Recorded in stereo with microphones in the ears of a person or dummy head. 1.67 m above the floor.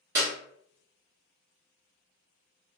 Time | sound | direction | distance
0.1 | a clap | 15° right (ahead or behind) | 0.7 m